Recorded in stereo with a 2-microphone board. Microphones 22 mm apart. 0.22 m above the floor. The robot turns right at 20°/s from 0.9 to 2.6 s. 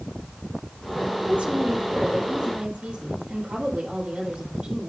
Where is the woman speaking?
80° right, 6.5 m; by 4.9 s 55° right (ahead or behind), 6.5 m.